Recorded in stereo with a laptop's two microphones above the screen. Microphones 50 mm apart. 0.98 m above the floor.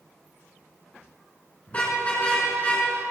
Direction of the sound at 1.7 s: 25° left (ahead or behind).